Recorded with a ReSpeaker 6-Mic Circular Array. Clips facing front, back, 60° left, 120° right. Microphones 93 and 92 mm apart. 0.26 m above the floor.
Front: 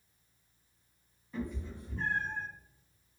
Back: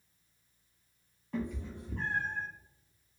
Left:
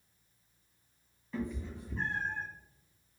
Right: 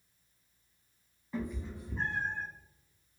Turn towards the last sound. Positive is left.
turn(degrees=150)